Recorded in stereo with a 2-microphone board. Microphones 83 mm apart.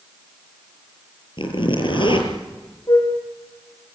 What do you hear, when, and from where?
1.4 s a zipper: 75° left (ahead or behind), 6.5 m
2.9 s a flute: 45° left (ahead or behind), 7 m